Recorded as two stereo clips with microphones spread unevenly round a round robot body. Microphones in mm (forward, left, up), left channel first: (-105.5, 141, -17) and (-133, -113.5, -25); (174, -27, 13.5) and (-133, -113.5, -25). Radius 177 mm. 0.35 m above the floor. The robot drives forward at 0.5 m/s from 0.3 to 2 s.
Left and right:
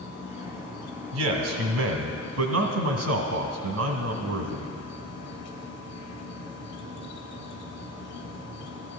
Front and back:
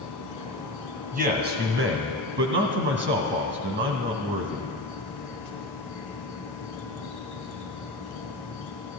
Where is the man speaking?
105° right, 2 m; by 4.8 s 115° right, 2 m.